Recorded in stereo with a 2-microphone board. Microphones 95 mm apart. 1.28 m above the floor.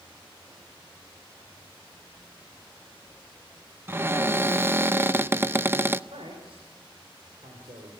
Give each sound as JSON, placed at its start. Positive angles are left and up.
{"t": 3.9, "sound": "a cupboard door", "side_deg": -20, "distance_m": 0.5}
{"t": 6.1, "sound": "a man speaking", "side_deg": -80, "distance_m": 5.0}